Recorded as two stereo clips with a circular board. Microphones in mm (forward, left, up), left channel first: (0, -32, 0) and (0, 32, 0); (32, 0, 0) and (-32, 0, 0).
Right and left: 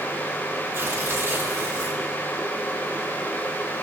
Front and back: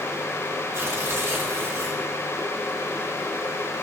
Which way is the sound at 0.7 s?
140° left.